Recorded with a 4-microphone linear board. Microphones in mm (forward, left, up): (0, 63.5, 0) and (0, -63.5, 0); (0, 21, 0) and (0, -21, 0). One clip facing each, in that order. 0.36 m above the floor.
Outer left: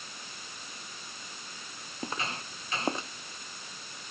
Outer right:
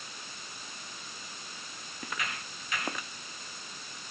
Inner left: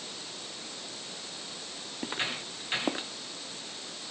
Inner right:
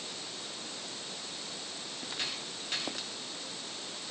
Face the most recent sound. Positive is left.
turn(degrees=30)  # may be behind; listen again after turning